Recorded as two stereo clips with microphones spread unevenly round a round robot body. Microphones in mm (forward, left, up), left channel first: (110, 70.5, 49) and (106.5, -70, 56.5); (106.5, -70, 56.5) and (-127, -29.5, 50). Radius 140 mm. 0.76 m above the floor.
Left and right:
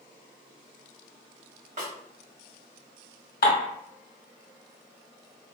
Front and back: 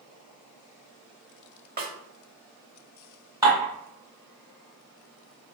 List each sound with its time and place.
1.8 s a snare drum: 135° right, 1.2 m
3.4 s dishes clattering: 95° left, 1.4 m